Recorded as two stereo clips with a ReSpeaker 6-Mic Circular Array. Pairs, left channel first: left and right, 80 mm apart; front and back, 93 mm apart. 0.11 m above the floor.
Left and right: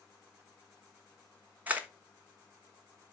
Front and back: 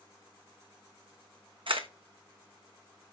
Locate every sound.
1.7 s a camera shutter: 160° right, 1.2 m